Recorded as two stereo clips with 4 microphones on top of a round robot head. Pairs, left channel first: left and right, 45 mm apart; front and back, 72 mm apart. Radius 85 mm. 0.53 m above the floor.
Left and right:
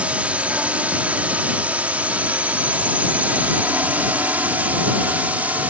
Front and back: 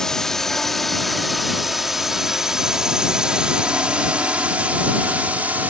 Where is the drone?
80° right; by 5.7 s 125° right.